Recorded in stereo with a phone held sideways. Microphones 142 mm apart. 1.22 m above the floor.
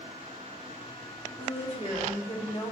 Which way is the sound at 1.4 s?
40° left (ahead or behind).